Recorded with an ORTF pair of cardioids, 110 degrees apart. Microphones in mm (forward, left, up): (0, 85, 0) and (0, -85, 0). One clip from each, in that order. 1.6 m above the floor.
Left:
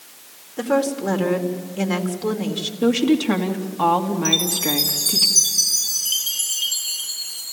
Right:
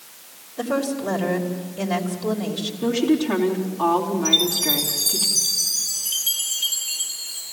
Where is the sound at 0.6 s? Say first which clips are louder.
Left 4 dB; 70° left, 3.5 m.